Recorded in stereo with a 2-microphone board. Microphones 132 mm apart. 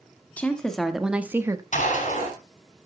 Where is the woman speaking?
10° left (ahead or behind), 1.9 m; by 1.6 s 25° right (ahead or behind), 1.2 m.